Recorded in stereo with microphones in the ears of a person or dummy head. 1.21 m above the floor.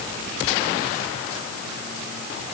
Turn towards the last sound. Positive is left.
No sound to turn to.